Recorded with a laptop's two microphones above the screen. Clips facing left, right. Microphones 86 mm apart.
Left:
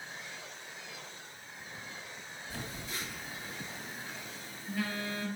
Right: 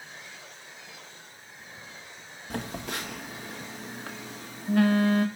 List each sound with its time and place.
2.5 s a phone buzzing: 70° right (ahead or behind), 1.4 m